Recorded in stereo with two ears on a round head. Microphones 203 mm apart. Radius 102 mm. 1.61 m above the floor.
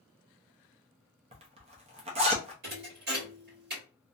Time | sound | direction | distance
1.3 | a zipper | 25° right (ahead or behind) | 0.6 m
2.6 | a thud | 45° right (ahead or behind) | 1.5 m